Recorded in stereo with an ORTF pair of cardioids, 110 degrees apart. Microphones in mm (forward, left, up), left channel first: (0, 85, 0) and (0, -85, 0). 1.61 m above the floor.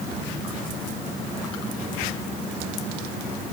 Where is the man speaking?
No man speaking in this recording.